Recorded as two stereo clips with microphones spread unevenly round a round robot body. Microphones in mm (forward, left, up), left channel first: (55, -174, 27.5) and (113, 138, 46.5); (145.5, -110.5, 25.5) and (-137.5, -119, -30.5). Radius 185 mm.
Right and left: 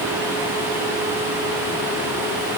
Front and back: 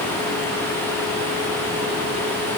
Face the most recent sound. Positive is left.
No sound to turn to.